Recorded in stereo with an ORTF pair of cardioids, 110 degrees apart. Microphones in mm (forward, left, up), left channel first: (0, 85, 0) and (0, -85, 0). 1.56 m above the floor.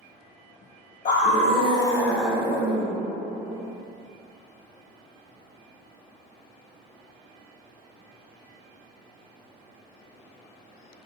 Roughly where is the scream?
Ahead left.